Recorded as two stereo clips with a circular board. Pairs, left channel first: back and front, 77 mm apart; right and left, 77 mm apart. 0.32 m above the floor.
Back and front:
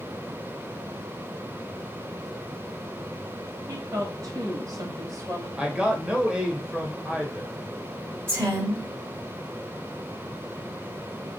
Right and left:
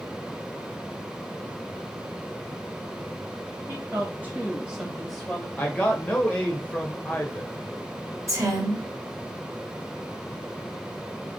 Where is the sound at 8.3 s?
55° left, 2 m.